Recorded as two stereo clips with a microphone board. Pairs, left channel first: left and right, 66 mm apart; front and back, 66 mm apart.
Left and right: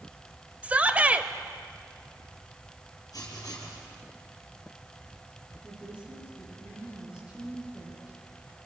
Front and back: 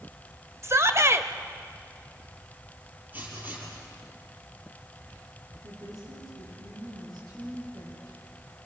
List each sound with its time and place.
0.6 s a shout: 155° right, 1.3 m
3.1 s writing: 120° left, 6 m
5.6 s a woman speaking: 165° right, 9 m